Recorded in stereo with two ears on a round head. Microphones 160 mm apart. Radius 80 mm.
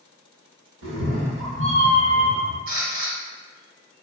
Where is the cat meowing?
70° right (ahead or behind), 0.8 m; by 2.6 s 50° right (ahead or behind), 1.2 m.